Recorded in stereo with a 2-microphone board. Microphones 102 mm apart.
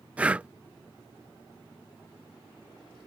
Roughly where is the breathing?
Centre.